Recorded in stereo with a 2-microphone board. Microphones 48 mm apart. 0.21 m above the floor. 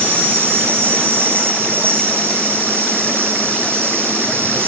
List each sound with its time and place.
0.0 s an insect: 45° right (ahead or behind), 1.3 m